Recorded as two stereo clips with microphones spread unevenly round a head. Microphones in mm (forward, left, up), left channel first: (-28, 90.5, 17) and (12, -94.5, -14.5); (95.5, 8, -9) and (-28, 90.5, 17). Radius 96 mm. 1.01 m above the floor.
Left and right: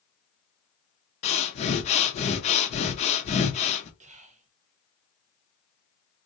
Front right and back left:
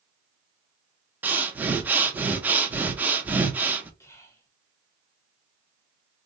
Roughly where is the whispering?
Right.